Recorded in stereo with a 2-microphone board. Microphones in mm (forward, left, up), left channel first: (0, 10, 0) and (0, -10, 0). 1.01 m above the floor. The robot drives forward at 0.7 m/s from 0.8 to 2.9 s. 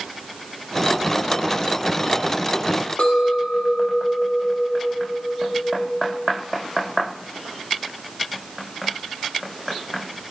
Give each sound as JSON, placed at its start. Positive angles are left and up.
{"t": 3.0, "sound": "a clink", "side_deg": 70, "distance_m": 1.8}